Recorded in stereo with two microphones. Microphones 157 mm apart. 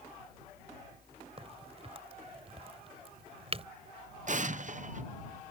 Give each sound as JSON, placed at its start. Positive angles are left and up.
{"t": 1.4, "sound": "a crack", "side_deg": -40}
{"t": 4.3, "sound": "an explosion", "side_deg": -55}